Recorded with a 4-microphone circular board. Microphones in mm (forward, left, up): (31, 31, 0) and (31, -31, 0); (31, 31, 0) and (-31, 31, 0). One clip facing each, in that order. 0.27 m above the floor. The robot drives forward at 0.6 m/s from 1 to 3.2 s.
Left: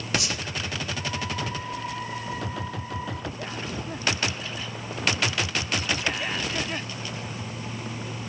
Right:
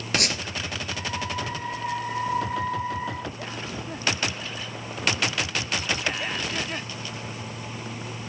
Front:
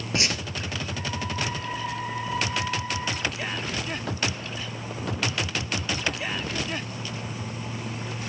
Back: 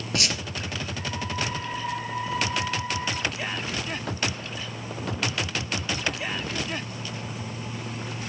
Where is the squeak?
65° right, 3.5 m.